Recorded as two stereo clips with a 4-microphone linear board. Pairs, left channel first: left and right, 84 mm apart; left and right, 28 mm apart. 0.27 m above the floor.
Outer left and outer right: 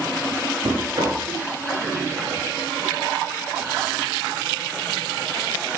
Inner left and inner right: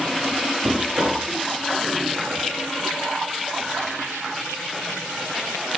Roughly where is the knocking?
Right.